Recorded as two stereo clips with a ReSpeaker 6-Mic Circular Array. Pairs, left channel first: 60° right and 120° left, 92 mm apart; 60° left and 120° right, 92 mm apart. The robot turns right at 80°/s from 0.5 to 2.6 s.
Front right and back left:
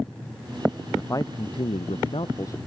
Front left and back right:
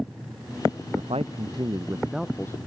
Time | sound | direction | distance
0.9 | a man speaking | 135° right | ?